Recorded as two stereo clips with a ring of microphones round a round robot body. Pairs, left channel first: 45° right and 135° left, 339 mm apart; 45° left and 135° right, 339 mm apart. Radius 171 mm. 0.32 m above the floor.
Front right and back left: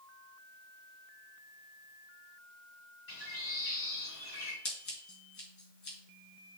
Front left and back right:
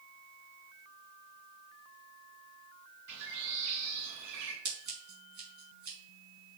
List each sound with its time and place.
3.1 s a bird: 100° right, 3.5 m
4.7 s scissors: 75° right, 4.5 m